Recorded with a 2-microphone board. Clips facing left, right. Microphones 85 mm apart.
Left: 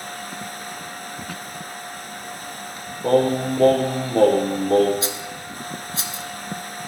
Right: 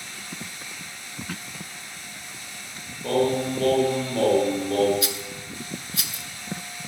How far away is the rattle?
About 0.7 m.